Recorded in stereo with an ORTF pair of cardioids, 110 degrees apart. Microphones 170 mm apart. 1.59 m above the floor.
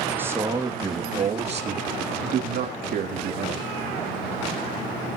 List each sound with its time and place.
0.1 s a man speaking: 10° right, 2.5 m; by 3.6 s 65° right, 4 m